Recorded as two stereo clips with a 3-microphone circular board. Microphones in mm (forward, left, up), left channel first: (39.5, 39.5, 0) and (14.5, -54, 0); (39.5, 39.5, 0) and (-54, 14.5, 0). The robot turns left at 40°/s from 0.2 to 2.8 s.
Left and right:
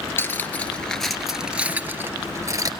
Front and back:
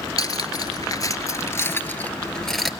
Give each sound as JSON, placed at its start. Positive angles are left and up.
{"t": 0.2, "sound": "cutlery clinking", "azimuth_deg": 25, "distance_m": 1.1}